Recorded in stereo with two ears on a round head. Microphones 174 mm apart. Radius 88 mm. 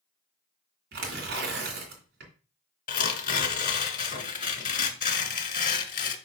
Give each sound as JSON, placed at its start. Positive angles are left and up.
{"t": 0.9, "sound": "tearing paper", "side_deg": -55, "distance_m": 2.5}
{"t": 2.9, "sound": "tearing paper", "side_deg": 45, "distance_m": 1.2}